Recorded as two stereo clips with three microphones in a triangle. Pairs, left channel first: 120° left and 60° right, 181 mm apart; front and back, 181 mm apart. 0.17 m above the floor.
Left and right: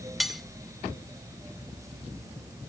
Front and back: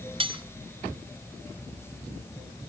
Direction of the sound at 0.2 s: 150° right.